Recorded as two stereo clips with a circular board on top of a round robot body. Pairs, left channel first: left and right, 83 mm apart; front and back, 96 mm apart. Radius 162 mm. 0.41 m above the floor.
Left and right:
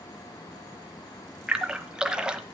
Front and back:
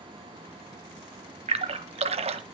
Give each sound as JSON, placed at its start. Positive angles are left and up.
{"t": 1.5, "sound": "a splash", "azimuth_deg": -170, "distance_m": 0.9}